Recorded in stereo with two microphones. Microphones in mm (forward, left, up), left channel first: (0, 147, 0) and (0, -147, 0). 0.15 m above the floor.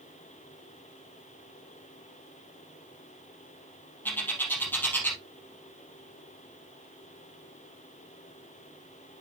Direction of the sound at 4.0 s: 5° left (ahead or behind).